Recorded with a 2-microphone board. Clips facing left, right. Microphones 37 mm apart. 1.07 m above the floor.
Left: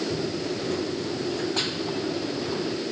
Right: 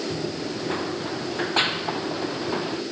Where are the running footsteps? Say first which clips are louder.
Left 1 dB; 45° right (ahead or behind); by 2.8 s 40° right (ahead or behind).